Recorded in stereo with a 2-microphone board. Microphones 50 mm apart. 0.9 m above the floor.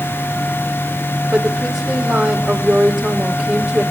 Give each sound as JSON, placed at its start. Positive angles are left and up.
{"t": 1.3, "sound": "a woman speaking", "side_deg": -10, "distance_m": 5.5}